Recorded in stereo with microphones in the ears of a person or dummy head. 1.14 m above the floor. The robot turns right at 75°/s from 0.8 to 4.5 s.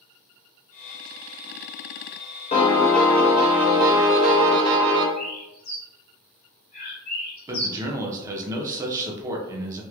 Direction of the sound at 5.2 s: 45° left (ahead or behind).